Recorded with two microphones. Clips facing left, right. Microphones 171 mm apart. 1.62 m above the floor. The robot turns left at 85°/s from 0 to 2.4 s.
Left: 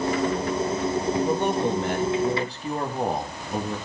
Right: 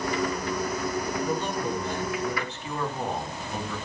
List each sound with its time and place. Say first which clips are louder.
1.2 s a man speaking: left 5 dB; 135° left, 2.5 m; by 3.8 s 35° left, 2.5 m